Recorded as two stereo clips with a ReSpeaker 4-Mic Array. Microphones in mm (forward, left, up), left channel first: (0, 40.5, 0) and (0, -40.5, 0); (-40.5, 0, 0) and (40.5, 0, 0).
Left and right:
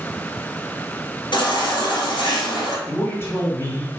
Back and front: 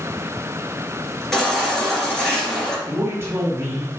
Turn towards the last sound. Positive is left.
turn(degrees=45)